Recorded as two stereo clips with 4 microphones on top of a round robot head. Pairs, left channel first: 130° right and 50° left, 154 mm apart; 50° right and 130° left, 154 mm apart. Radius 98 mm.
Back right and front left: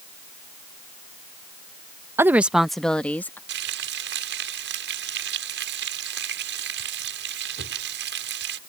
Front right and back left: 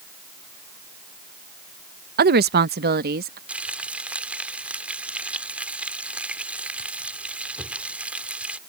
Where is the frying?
50° left.